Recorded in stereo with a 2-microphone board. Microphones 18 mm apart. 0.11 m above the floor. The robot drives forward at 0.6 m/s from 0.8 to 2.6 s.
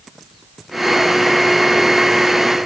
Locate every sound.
Only background noise.